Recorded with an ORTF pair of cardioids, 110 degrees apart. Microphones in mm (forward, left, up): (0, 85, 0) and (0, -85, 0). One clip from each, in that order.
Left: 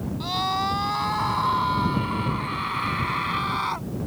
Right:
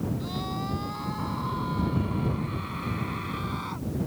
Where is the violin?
No violin in this recording.